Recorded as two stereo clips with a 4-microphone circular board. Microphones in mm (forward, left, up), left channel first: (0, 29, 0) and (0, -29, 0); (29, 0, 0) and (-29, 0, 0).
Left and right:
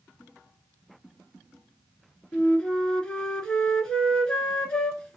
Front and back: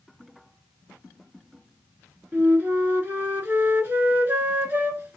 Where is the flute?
155° left, 0.9 m.